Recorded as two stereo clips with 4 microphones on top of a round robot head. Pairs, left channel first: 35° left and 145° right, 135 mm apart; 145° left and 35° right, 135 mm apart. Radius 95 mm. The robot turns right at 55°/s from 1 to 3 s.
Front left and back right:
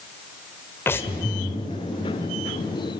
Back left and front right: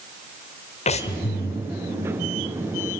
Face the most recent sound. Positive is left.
turn(degrees=-140)